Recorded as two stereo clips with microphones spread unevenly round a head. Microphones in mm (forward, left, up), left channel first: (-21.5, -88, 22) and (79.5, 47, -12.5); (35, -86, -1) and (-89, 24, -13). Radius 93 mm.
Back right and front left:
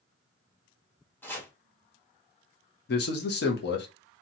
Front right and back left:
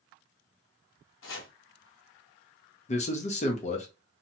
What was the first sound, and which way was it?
Chopping, 45° right.